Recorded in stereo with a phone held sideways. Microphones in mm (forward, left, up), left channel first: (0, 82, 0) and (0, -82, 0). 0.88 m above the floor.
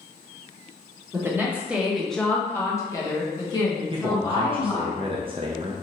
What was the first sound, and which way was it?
A woman speaking, 15° right (ahead or behind).